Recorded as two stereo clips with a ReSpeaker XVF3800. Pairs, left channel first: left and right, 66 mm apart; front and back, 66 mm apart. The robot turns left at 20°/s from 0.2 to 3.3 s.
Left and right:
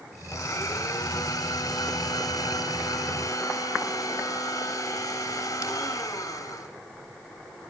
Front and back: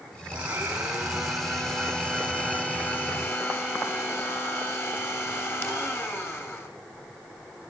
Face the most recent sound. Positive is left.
turn(degrees=55)